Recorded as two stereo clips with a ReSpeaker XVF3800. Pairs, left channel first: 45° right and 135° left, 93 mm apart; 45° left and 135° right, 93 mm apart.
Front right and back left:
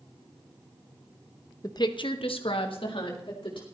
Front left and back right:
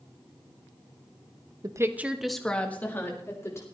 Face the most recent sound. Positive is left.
turn(degrees=-15)